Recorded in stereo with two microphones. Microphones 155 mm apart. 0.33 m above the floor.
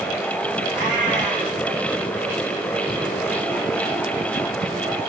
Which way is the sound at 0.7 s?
5° right (ahead or behind).